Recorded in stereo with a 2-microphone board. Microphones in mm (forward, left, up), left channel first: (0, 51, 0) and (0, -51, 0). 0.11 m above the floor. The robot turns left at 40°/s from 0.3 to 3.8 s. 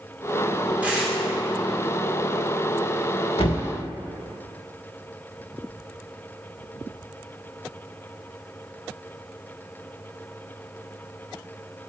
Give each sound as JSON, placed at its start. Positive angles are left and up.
{"t": 0.8, "sound": "tearing paper", "side_deg": -15, "distance_m": 2.5}
{"t": 3.4, "sound": "a thud", "side_deg": 70, "distance_m": 2.0}